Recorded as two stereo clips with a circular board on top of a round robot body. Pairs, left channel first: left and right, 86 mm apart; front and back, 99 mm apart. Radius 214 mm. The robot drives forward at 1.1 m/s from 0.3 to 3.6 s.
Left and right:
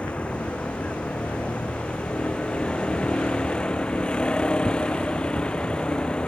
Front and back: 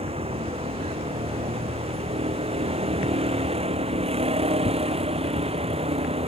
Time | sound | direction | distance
0.0 | a vehicle | 165° left | ?